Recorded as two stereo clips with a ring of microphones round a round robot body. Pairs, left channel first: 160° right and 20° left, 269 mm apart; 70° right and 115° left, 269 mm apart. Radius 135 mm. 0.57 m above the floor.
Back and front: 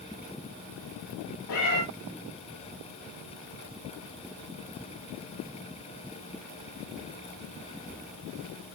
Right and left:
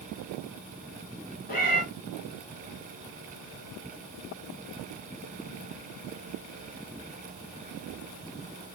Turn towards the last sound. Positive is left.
turn(degrees=-130)